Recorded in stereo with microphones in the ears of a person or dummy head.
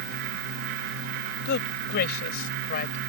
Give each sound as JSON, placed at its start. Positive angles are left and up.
{"t": 1.4, "sound": "a man speaking", "side_deg": 60}